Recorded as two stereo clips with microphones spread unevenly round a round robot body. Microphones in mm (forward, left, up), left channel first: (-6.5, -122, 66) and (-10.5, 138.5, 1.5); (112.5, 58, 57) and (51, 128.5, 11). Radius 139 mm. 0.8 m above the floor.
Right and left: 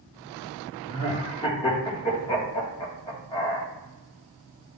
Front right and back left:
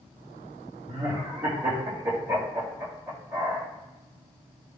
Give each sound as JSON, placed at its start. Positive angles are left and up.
{"t": 0.9, "sound": "laughter", "azimuth_deg": -170, "distance_m": 2.5}